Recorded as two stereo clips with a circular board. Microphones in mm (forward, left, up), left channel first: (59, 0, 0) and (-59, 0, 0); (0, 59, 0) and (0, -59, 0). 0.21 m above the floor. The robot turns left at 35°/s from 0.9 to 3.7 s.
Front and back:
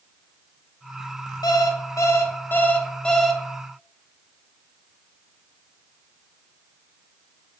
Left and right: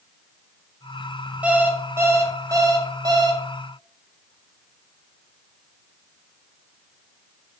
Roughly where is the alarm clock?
Ahead.